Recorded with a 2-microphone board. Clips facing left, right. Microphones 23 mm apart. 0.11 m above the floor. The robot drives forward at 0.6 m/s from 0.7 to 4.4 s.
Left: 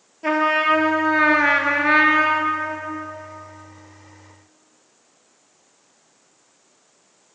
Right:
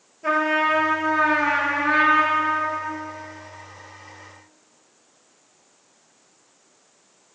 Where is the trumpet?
30° left (ahead or behind), 0.8 m; by 2.9 s 25° left (ahead or behind), 1.0 m.